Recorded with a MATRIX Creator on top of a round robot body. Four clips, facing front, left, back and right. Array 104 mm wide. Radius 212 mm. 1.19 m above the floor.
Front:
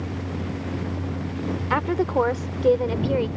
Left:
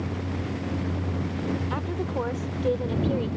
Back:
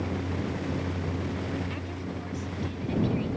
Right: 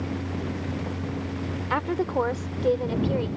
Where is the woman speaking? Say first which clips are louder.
Right 4 dB, front 14 dB; 25° right; by 3.3 s 5° right.